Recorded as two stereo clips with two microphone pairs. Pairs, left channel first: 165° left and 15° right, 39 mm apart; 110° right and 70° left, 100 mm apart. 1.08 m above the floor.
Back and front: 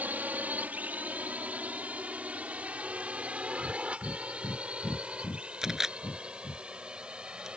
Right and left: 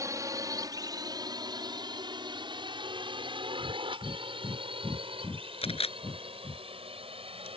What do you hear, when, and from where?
0.0 s a drone: 20° left; by 7.6 s 50° left
3.6 s breathing: straight behind
5.6 s a camera shutter: 95° right